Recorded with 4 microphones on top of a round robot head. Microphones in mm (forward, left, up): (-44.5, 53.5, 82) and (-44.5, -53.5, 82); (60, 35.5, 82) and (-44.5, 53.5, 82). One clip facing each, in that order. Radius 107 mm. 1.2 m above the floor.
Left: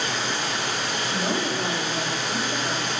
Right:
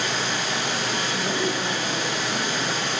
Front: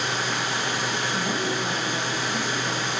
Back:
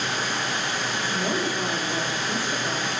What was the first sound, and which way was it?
Running water, 90° right.